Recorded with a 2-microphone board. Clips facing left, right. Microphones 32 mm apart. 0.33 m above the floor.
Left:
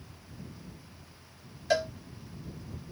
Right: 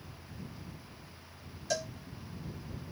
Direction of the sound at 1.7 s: 35° left (ahead or behind).